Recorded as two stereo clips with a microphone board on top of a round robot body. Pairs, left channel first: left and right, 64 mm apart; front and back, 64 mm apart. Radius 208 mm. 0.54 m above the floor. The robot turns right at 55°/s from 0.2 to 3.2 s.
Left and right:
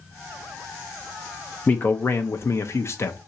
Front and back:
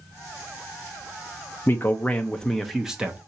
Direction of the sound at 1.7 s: 35° left.